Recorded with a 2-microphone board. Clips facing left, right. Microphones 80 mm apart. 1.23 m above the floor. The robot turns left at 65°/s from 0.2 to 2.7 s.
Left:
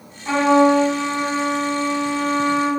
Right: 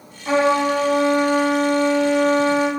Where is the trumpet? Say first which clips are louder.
Left 3 dB; 10° right, 3.5 m; by 2.7 s 170° right, 3.5 m.